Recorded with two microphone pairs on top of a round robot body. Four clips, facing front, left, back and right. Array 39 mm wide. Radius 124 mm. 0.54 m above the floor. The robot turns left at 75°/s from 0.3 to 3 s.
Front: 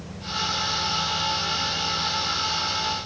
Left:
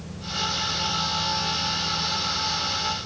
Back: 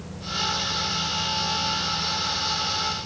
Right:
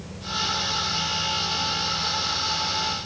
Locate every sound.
Only background noise.